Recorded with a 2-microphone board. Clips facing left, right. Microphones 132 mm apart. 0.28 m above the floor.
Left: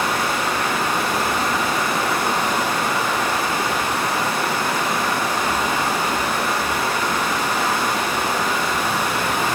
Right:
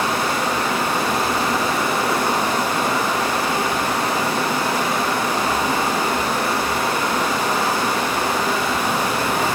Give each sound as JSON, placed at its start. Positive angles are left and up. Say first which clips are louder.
{"t": 0.0, "sound": "running water", "louder": "right 1 dB", "side_deg": -10, "distance_m": 3.0}